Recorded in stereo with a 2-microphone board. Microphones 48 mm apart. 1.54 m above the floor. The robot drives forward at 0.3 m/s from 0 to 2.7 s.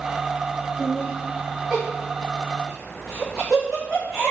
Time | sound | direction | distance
0.8 | laughter | centre (ahead or behind) | 0.6 m